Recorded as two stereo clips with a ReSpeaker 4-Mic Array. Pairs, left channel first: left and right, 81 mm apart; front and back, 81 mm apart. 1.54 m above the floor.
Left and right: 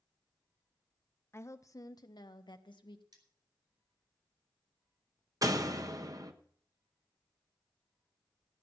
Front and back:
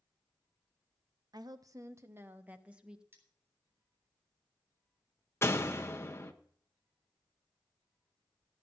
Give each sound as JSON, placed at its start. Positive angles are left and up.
{"t": 1.3, "sound": "a woman speaking", "azimuth_deg": 150, "distance_m": 1.1}
{"t": 3.1, "sound": "cutlery clinking", "azimuth_deg": -120, "distance_m": 3.5}
{"t": 5.4, "sound": "a door slam", "azimuth_deg": -55, "distance_m": 1.1}